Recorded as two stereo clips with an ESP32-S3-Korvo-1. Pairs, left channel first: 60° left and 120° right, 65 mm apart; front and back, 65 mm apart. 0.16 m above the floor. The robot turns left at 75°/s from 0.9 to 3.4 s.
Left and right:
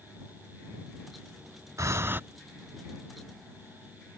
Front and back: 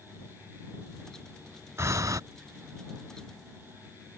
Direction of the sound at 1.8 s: 145° right.